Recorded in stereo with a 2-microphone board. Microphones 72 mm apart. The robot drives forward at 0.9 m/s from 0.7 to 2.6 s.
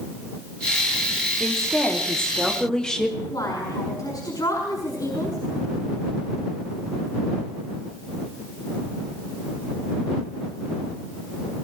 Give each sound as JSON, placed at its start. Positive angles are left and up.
{"t": 1.4, "sound": "a woman speaking", "side_deg": 5, "distance_m": 3.5}
{"t": 3.3, "sound": "a woman speaking", "side_deg": 65, "distance_m": 5.5}